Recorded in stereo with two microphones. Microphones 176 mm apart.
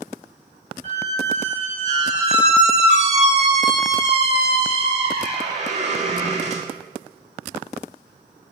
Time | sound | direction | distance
0.8 | a squeak | 40° right (ahead or behind) | 0.6 m